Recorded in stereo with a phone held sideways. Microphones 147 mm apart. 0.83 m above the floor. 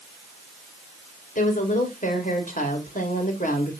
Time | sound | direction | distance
1.4 | a woman speaking | 75° left (ahead or behind) | 2.5 m